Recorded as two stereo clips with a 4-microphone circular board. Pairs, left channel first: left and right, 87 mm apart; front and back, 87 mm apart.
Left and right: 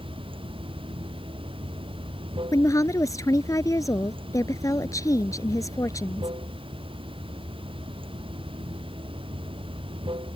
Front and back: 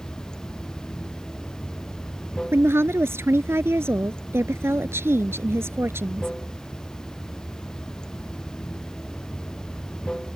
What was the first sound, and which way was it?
Running water, 80° right.